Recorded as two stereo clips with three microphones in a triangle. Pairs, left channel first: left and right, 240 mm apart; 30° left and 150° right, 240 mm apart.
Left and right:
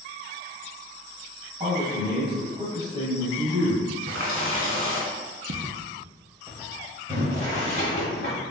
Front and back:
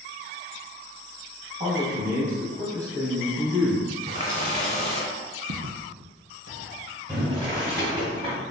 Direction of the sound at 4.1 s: 95° right.